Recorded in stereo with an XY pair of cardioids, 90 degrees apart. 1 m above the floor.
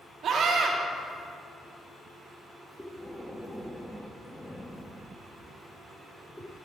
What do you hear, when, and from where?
0.2 s a scream: 70° right, 1.5 m
2.8 s breathing: 10° left, 0.7 m